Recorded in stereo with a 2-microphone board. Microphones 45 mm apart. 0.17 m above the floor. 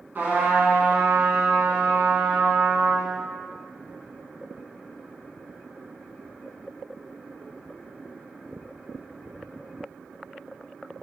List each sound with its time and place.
0.1 s a trumpet: 45° right (ahead or behind), 0.9 m